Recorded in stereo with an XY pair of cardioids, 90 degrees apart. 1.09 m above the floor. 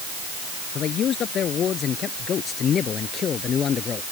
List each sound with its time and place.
0.8 s a man speaking: 70° left; by 4.0 s 55° left